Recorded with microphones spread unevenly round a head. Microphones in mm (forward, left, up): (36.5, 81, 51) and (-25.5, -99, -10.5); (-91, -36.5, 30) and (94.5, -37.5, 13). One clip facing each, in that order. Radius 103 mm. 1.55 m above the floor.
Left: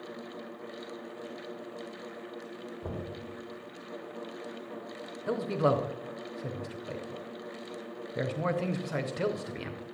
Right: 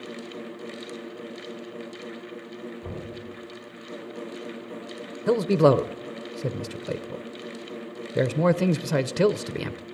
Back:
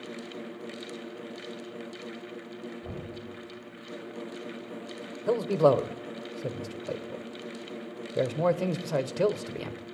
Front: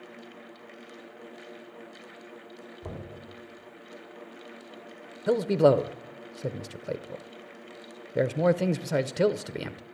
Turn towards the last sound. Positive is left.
turn(degrees=-75)